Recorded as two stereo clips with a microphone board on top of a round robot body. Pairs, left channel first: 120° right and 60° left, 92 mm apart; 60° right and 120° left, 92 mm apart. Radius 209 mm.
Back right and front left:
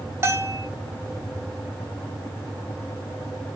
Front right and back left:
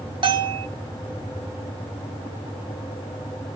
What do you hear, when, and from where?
0.2 s a bell: 115° left, 0.7 m